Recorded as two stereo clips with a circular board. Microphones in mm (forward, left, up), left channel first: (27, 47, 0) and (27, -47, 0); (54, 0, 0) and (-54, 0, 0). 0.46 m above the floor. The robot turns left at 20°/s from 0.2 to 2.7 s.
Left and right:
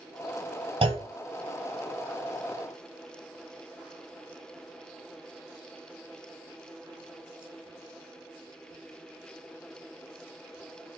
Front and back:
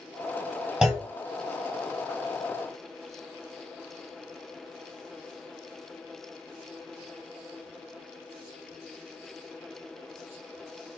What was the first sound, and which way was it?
A clunk, 100° right.